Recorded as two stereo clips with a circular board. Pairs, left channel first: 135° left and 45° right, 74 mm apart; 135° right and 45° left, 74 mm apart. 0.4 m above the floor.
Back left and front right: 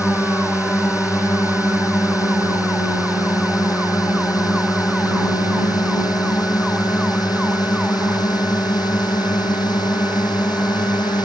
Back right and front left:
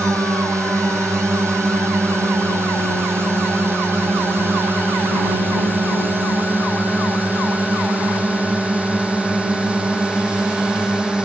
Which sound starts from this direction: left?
A drone, at 0.0 s.